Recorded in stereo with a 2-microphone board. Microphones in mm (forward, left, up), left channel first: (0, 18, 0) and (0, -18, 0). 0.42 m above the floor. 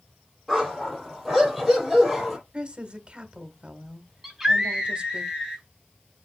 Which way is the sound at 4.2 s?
5° right (ahead or behind).